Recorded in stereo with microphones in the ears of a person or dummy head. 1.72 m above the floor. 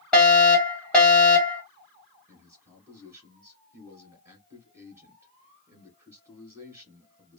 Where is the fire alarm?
5° left (ahead or behind), 3 m.